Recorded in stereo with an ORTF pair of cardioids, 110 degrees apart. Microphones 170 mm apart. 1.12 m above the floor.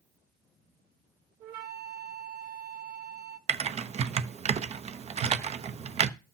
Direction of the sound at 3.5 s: 40° right.